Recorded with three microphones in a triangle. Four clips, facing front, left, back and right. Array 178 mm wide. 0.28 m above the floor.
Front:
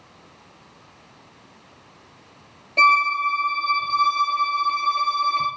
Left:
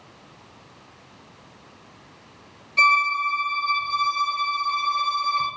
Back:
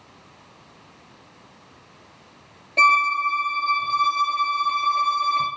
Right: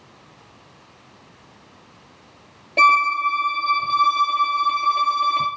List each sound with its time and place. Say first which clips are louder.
2.8 s a violin: right 4 dB, front 1 dB; 90° right, 2.5 m